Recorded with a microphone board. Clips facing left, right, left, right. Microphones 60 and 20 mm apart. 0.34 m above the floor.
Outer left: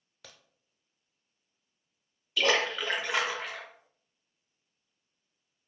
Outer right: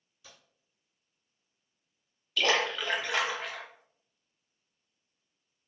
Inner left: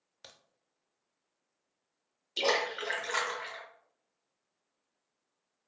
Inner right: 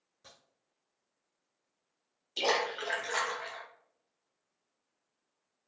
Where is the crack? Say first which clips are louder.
Outer left 2 dB, inner left 3 dB; 70° left (ahead or behind), 0.7 m.